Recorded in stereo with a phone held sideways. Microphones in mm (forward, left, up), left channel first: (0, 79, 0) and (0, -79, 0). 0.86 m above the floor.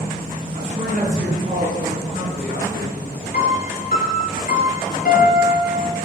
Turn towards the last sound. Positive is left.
turn(degrees=70)  # may be behind; listen again after turning